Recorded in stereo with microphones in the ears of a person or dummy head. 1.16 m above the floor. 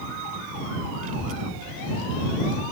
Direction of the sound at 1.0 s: 45° right (ahead or behind).